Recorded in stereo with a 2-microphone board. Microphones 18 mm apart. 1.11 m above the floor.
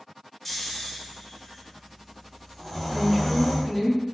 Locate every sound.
0.5 s snoring: 10° left (ahead or behind), 0.8 m
2.9 s a woman speaking: centre (ahead or behind), 1.0 m